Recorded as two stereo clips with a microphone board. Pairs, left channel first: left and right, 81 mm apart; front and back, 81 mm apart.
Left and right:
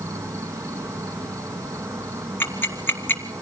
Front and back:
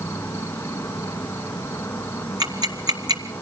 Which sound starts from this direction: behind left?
Ticking, at 2.4 s.